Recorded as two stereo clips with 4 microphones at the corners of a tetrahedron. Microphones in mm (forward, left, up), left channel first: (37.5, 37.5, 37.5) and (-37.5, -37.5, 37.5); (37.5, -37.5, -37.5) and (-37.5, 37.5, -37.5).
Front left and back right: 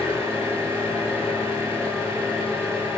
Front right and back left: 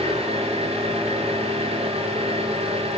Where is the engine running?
155° left, 7.5 m.